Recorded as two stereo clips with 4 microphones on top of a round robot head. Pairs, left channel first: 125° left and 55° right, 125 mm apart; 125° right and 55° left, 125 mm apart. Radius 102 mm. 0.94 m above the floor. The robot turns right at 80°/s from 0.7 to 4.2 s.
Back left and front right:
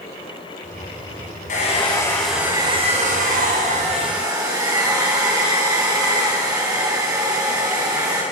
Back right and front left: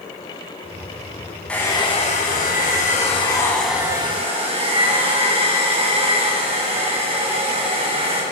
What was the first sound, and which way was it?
A hair dryer, 150° left.